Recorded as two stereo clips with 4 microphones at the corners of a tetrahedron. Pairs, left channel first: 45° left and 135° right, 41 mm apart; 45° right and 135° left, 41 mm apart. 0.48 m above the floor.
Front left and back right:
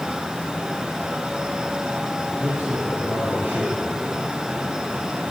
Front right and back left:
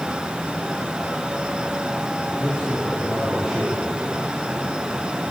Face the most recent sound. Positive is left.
turn(degrees=-150)